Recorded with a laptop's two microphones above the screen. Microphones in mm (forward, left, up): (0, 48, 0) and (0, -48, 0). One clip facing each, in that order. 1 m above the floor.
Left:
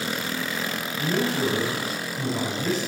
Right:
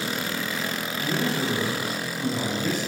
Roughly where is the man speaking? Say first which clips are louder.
Left 2 dB; left.